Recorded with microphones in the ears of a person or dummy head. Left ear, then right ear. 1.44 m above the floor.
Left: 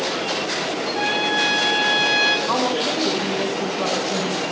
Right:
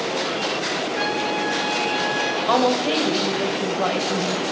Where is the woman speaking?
25° right (ahead or behind), 1.7 m.